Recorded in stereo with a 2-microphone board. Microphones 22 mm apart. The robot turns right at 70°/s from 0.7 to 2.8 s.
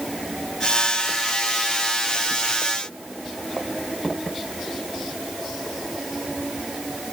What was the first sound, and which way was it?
Only background noise.